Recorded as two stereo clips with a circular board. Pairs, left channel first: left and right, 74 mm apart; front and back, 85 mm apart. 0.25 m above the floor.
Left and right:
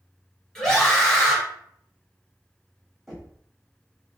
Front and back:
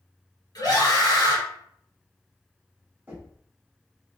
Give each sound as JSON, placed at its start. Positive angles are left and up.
{"t": 0.6, "sound": "a scream", "azimuth_deg": 15, "distance_m": 1.8}
{"t": 3.1, "sound": "knocking", "azimuth_deg": 180, "distance_m": 1.2}